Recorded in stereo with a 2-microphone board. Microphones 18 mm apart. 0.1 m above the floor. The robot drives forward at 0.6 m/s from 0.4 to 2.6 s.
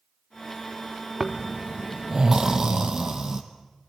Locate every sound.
1.2 s snoring: 45° right (ahead or behind), 1.2 m; by 3.4 s 25° right (ahead or behind), 1.7 m